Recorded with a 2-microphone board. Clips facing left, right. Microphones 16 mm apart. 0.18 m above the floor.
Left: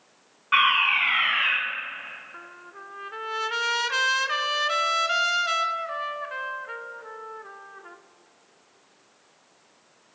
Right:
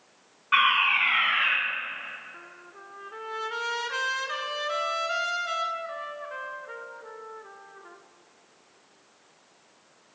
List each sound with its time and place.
0.5 s a fire alarm: 5° left (ahead or behind), 2.5 m
2.3 s a trumpet: 30° left (ahead or behind), 0.6 m